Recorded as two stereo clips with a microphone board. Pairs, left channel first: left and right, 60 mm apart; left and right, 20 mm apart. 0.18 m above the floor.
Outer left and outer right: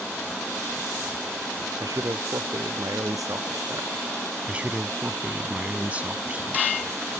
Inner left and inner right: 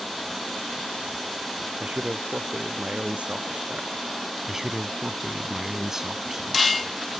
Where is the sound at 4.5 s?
25° right (ahead or behind).